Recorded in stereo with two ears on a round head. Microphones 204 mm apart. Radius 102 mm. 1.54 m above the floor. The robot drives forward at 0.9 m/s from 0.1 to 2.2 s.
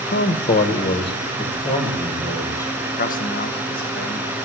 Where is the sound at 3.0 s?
40° left (ahead or behind), 1.5 m.